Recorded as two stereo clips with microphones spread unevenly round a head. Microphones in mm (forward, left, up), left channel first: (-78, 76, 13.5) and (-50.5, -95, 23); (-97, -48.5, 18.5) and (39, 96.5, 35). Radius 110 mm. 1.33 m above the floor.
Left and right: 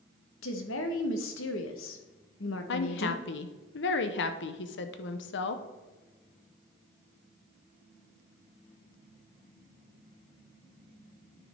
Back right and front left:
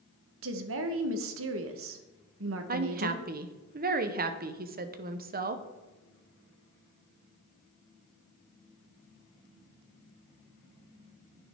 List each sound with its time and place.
0.4 s a woman speaking: 60° left, 1.0 m
2.7 s a woman speaking: 90° left, 0.8 m